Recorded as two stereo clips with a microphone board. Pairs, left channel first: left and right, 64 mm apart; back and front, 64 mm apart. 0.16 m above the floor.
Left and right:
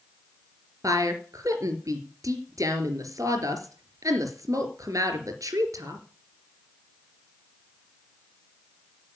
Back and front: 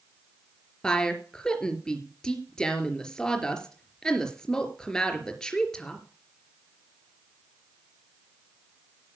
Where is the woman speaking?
100° right, 3.5 m.